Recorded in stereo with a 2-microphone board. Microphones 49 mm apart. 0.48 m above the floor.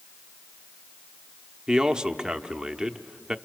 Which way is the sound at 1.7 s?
15° right (ahead or behind).